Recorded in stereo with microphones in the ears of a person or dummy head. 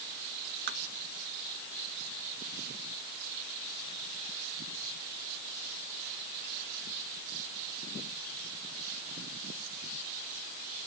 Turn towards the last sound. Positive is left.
turn(degrees=-55)  # may be behind; listen again after turning